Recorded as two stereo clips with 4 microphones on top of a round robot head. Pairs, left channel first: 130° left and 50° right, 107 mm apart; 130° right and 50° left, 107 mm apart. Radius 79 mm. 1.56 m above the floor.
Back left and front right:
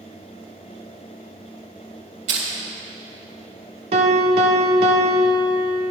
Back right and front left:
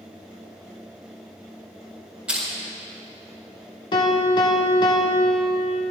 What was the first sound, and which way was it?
Crushing, 35° right.